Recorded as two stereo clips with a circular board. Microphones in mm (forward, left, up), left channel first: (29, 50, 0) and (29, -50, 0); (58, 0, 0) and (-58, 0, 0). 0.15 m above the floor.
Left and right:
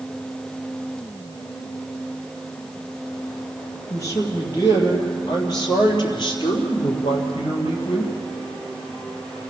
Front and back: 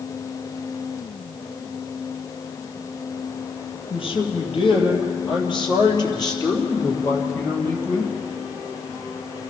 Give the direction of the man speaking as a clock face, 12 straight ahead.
11 o'clock.